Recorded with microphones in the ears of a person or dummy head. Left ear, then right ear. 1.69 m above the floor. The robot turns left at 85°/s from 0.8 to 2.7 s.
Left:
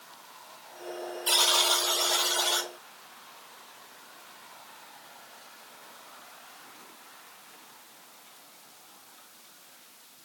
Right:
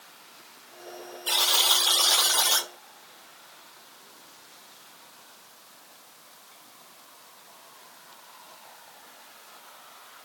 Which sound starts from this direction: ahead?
A buzzer, at 1.3 s.